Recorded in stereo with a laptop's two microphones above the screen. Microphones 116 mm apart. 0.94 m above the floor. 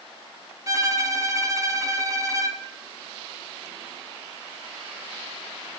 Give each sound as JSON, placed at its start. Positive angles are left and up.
{"t": 0.7, "sound": "a violin", "side_deg": -30, "distance_m": 1.0}